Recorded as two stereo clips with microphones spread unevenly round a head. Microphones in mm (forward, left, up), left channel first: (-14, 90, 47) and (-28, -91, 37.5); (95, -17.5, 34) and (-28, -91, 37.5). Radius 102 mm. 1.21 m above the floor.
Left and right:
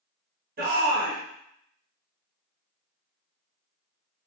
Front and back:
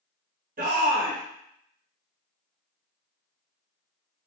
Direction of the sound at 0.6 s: 130° right.